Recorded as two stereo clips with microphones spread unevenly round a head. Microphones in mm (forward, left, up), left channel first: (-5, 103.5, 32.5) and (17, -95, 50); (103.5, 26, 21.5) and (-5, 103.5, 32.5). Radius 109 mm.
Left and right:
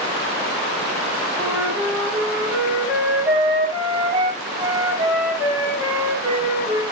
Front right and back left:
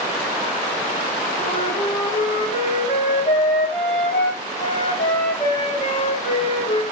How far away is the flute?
About 3 m.